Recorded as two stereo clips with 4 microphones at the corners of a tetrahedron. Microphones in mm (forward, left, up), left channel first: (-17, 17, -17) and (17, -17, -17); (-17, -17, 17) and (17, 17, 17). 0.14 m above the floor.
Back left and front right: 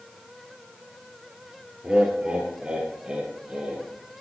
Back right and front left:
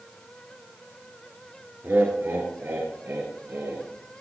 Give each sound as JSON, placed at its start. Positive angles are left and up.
{"t": 1.8, "sound": "laughter", "azimuth_deg": 20, "distance_m": 2.5}